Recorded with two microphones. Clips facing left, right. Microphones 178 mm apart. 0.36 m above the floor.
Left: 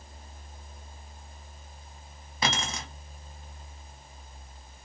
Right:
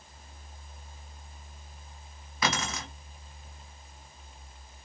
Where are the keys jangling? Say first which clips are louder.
Even; 30° left (ahead or behind), 1.1 m.